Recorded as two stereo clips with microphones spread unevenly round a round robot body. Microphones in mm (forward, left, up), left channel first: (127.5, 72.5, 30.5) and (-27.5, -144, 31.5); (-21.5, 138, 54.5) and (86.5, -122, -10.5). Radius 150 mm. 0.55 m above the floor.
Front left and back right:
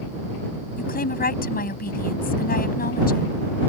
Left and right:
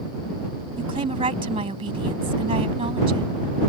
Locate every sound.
0.8 s a woman speaking: straight ahead